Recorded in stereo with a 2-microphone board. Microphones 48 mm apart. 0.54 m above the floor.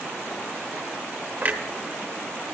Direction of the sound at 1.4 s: 35° right (ahead or behind).